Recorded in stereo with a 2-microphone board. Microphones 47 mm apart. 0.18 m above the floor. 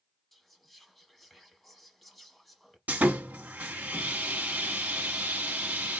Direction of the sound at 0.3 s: Centre (ahead or behind).